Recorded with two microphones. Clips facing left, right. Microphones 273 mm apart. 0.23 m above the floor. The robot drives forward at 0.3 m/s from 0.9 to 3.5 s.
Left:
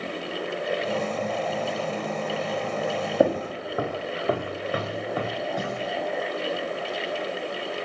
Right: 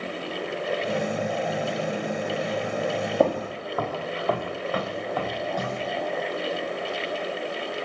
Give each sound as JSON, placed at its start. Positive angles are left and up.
{"t": 3.2, "sound": "footsteps", "side_deg": 10, "distance_m": 0.6}